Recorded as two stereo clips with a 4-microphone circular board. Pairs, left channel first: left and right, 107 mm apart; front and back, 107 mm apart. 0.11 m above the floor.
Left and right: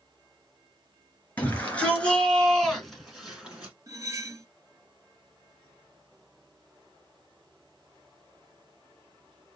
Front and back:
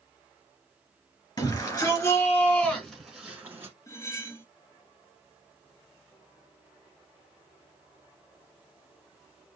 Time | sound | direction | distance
1.4 | a shout | 25° left | 2 m
3.9 | cutlery clinking | 45° right | 1.2 m